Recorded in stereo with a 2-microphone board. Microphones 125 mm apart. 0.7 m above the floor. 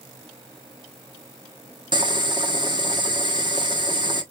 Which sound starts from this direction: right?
Boiling, at 1.9 s.